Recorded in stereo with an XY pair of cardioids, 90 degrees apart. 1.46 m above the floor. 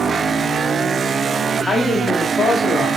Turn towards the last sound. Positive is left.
turn(degrees=55)